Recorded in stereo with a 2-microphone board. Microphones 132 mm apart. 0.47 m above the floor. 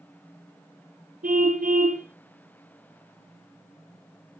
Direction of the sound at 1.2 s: 75° right (ahead or behind).